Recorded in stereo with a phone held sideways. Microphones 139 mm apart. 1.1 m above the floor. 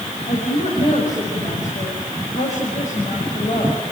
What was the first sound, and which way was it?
A woman speaking, 60° left (ahead or behind).